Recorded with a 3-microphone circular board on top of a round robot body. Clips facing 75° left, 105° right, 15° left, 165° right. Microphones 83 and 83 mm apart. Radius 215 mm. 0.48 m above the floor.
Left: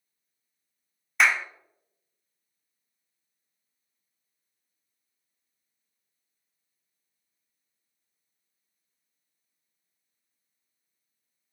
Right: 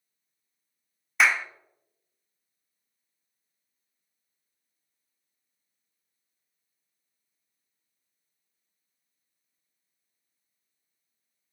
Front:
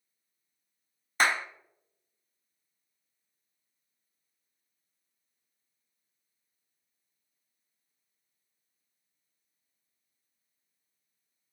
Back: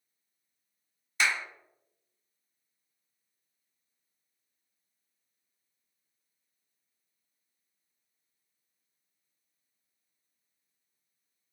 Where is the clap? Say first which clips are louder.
Even, front 3 dB; 15° right, 0.6 m.